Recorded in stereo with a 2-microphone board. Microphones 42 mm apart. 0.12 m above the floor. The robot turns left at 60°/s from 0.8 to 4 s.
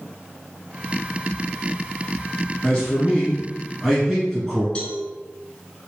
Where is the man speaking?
25° left (ahead or behind), 1.7 m; by 4.7 s 5° left (ahead or behind), 1.7 m.